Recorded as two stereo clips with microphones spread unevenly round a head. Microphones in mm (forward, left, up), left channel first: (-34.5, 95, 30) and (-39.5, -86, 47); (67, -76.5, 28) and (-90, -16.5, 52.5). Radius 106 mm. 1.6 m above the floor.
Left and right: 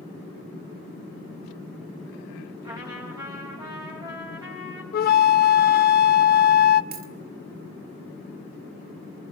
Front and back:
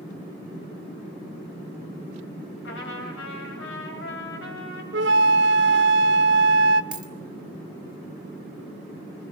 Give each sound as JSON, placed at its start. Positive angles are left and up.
{"t": 2.6, "sound": "a trumpet", "azimuth_deg": -20, "distance_m": 5.5}
{"t": 4.9, "sound": "a flute", "azimuth_deg": 125, "distance_m": 0.9}
{"t": 6.9, "sound": "a dropped coin", "azimuth_deg": -120, "distance_m": 2.0}